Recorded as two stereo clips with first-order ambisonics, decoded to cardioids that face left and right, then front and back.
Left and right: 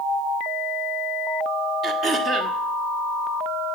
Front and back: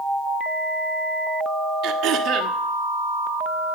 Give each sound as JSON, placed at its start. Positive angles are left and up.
{"t": 1.8, "sound": "throat clearing", "azimuth_deg": -145, "distance_m": 1.5}